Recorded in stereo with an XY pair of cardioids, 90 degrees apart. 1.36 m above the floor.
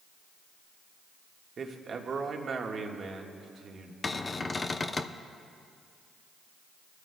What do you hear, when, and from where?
1.6 s a man speaking: 55° right, 1.5 m
4.0 s a cupboard door: 30° left, 0.6 m